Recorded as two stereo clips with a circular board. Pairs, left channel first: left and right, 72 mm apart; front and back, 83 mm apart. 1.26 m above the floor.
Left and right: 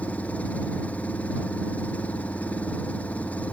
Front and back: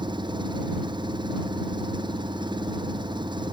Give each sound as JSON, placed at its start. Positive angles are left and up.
{"t": 0.0, "sound": "an engine running", "azimuth_deg": 160}